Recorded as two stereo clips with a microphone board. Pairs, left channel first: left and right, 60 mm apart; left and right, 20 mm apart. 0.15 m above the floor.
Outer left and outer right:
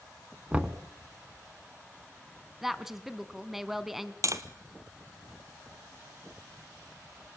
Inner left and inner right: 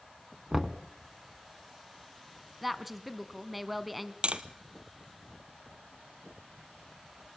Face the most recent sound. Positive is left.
turn(degrees=-60)  # may be behind; listen again after turning